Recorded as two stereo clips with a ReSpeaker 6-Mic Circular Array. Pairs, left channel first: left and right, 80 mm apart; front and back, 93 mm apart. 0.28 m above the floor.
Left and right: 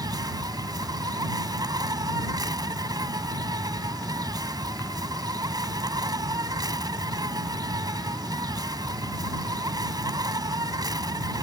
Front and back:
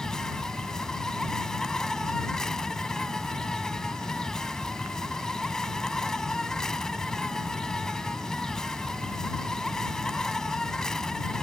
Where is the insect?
80° right.